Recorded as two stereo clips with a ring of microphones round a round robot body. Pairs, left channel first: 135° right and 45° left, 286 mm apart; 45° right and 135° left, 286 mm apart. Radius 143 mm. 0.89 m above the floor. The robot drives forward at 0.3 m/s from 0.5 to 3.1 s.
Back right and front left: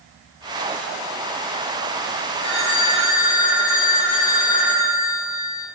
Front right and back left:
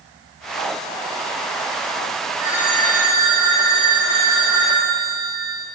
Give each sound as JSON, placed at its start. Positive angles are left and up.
{"t": 2.4, "sound": "a phone ringing", "azimuth_deg": -105, "distance_m": 4.0}